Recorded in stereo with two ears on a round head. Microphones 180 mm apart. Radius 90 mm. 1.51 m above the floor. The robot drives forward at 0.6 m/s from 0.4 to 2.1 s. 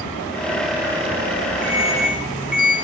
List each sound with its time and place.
1.6 s an alarm: 5° right (ahead or behind), 4 m